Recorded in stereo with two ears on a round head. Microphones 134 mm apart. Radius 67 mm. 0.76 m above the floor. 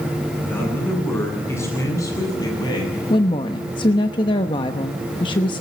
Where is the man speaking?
15° left (ahead or behind), 10 m; by 3.0 s 30° left (ahead or behind), 7.5 m.